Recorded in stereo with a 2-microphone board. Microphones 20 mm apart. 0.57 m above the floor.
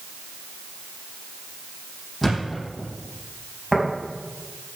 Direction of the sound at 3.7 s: 5° right (ahead or behind).